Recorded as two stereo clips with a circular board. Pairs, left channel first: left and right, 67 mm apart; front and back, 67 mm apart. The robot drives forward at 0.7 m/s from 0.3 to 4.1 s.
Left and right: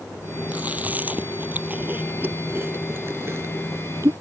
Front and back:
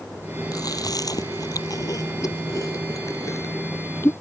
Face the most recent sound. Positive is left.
turn(degrees=-50)